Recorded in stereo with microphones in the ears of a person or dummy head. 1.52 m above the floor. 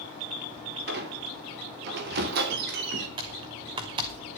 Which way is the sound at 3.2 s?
25° right (ahead or behind).